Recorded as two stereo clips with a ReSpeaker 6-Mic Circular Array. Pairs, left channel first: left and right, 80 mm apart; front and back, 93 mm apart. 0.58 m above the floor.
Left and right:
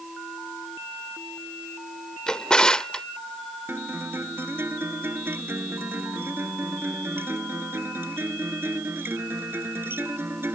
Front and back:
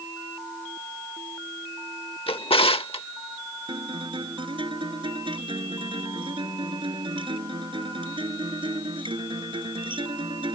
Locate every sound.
2.3 s a drawer: 10° left
3.7 s a guitar: 150° right